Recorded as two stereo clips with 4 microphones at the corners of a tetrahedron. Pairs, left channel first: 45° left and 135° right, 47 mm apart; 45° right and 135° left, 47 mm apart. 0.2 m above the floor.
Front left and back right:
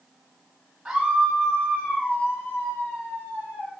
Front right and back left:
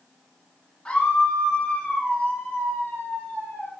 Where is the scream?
65° right, 1.6 m; by 3.7 s 25° left, 4 m.